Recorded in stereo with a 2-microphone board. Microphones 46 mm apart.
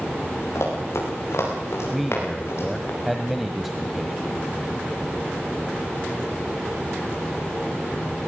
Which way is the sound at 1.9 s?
5° right (ahead or behind).